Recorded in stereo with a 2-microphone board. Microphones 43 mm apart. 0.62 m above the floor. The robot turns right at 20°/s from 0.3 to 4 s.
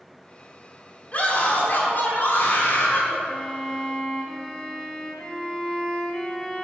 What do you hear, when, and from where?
1.1 s a scream: 45° left, 2 m; by 3.2 s 85° left, 2 m
3.3 s a violin: centre (ahead or behind), 1.1 m; by 6.6 s 15° left (ahead or behind), 1.1 m